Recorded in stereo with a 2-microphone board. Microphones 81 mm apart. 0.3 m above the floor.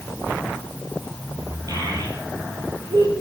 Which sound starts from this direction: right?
A child speaking, at 1.7 s.